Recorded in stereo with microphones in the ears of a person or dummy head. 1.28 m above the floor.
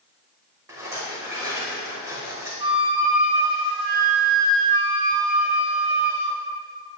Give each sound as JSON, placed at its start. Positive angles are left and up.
{"t": 0.7, "sound": "a rattle", "side_deg": -15, "distance_m": 3.5}
{"t": 2.6, "sound": "a flute", "side_deg": -30, "distance_m": 2.0}